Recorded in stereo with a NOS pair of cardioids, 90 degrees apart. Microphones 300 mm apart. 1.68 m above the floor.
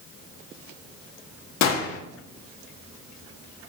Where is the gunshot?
65° left, 0.7 m.